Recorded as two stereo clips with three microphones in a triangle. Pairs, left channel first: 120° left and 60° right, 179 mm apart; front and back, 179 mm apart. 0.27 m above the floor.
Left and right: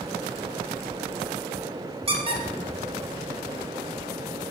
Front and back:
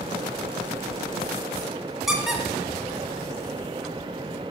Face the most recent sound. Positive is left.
turn(degrees=-95)